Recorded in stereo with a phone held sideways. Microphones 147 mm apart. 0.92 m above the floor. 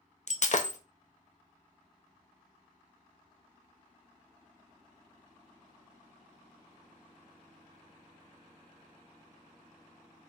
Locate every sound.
0.3 s breaking glass: 55° left (ahead or behind), 0.5 m